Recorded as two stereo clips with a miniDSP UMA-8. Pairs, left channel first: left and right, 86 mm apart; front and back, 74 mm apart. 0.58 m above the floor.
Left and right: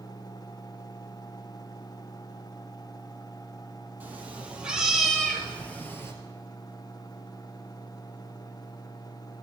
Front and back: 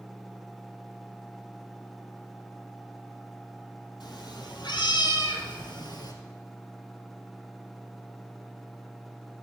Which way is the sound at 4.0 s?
20° right.